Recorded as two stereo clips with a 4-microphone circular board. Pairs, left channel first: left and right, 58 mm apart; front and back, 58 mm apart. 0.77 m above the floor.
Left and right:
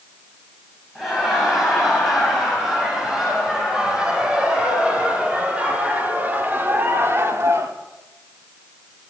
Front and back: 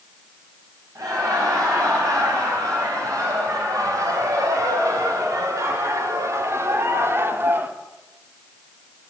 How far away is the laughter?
About 4.5 m.